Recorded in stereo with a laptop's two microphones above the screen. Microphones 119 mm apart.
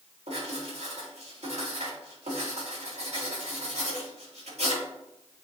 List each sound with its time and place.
0.3 s writing: 75° right (ahead or behind), 3.5 m